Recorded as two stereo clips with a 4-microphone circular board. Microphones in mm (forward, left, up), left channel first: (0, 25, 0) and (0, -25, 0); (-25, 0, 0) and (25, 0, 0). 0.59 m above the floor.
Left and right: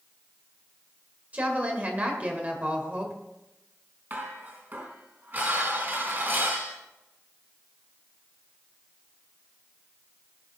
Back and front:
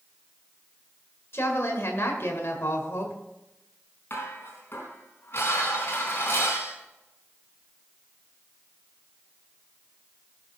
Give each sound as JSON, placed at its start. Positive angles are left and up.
{"t": 1.3, "sound": "a woman speaking", "azimuth_deg": -145, "distance_m": 2.0}
{"t": 4.1, "sound": "dishes clattering", "azimuth_deg": -135, "distance_m": 4.0}